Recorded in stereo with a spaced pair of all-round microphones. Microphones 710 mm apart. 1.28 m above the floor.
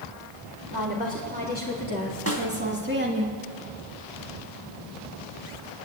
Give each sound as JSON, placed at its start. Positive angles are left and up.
{"t": 0.7, "sound": "a woman speaking", "side_deg": -10, "distance_m": 4.5}
{"t": 2.3, "sound": "a snare drum", "side_deg": -20, "distance_m": 2.5}